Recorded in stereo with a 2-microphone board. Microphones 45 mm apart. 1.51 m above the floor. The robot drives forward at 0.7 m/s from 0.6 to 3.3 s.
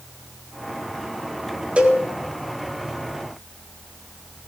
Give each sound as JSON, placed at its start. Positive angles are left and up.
{"t": 1.8, "sound": "a cowbell", "side_deg": -30, "distance_m": 4.0}